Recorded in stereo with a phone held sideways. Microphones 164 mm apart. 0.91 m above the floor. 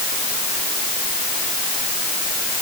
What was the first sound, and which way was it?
Only background noise.